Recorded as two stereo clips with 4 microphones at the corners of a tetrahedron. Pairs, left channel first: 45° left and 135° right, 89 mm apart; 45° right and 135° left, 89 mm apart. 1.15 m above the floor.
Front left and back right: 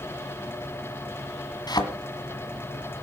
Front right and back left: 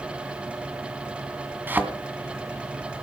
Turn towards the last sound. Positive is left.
turn(degrees=70)